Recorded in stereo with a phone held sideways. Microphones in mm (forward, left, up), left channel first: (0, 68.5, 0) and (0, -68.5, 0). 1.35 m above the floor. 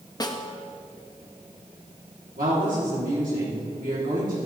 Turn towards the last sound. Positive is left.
turn(degrees=-75)  # may be behind; listen again after turning